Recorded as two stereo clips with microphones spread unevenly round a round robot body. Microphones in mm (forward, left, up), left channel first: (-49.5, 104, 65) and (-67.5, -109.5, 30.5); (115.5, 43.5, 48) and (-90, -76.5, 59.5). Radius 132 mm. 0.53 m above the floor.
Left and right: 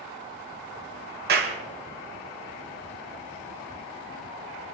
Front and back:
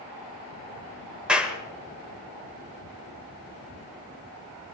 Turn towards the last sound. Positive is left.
turn(degrees=-65)